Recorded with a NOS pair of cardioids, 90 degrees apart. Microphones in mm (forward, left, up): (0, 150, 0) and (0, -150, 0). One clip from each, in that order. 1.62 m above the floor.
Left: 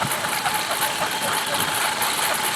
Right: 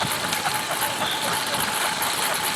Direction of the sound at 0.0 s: 15° left.